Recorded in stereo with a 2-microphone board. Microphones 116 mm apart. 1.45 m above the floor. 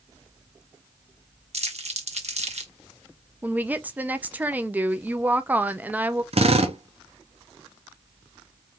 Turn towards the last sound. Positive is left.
turn(degrees=-60)  # may be behind; listen again after turning